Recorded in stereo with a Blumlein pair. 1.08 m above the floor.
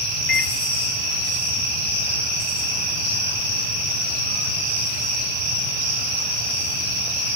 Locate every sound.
0.3 s a microwave: 35° left, 1.3 m